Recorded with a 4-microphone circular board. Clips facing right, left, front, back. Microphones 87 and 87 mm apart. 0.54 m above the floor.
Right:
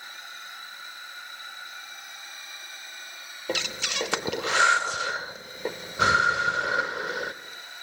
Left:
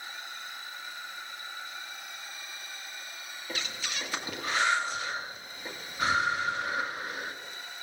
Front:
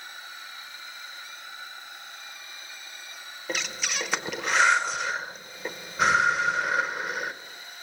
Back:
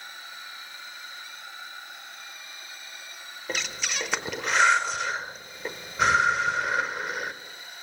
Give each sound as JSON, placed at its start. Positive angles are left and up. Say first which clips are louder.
{"t": 3.5, "sound": "breathing", "louder": "right 7 dB, even", "azimuth_deg": -90, "distance_m": 0.7}